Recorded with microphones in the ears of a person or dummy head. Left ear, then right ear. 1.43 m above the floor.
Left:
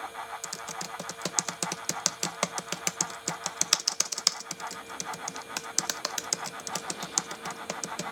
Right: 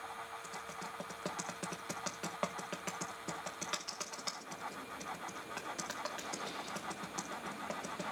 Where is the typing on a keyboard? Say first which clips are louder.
Left 7 dB; 70° left (ahead or behind), 0.7 m.